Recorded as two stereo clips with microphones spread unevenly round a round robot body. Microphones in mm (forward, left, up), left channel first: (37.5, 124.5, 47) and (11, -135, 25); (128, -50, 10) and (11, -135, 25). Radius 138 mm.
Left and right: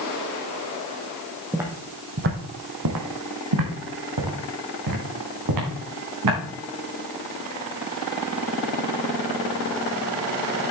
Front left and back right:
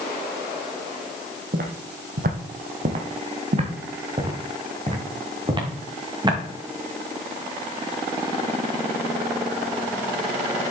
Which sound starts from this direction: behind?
Footsteps, at 1.5 s.